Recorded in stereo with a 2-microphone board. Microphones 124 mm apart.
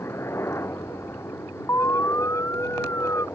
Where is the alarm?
20° left (ahead or behind).